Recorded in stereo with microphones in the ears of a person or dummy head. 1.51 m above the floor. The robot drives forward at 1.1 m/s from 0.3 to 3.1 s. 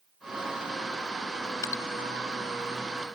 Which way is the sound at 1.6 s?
25° left (ahead or behind).